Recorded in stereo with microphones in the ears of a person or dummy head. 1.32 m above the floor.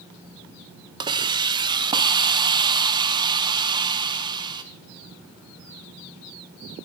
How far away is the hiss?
About 0.8 m.